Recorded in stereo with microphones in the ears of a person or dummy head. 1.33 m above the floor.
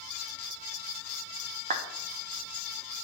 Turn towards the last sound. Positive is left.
turn(degrees=-40)  # may be behind; listen again after turning